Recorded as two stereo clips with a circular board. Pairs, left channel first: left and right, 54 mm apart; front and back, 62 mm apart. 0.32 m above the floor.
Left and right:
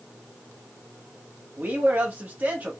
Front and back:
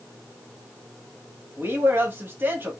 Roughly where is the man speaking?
Behind right.